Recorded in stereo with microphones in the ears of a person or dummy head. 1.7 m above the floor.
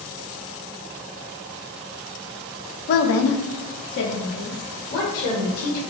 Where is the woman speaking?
50° left (ahead or behind), 0.5 m.